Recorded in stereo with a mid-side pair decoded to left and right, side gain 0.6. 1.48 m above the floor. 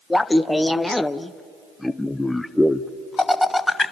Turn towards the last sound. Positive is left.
turn(degrees=10)